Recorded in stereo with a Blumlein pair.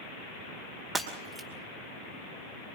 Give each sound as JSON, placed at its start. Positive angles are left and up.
{"t": 0.9, "sound": "breaking glass", "azimuth_deg": -5, "distance_m": 2.5}